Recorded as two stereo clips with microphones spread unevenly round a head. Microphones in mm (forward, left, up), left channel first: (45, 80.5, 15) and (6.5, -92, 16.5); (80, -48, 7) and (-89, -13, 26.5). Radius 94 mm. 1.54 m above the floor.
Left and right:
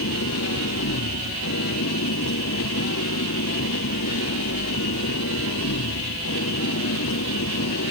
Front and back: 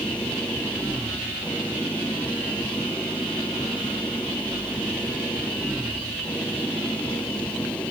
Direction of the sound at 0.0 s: 75° left.